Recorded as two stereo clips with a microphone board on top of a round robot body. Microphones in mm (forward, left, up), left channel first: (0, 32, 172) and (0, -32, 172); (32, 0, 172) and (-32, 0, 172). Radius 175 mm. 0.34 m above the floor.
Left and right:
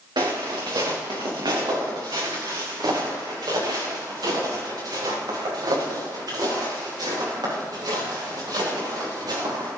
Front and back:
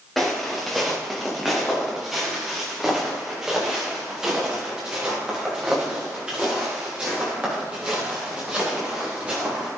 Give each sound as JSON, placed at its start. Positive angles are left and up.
{"t": 0.2, "sound": "footsteps", "azimuth_deg": -90, "distance_m": 3.0}